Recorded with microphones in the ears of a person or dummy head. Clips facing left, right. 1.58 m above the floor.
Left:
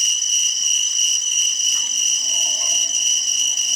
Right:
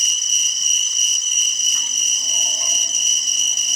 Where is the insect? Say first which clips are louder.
Right 1 dB; 65° right (ahead or behind), 1.2 m.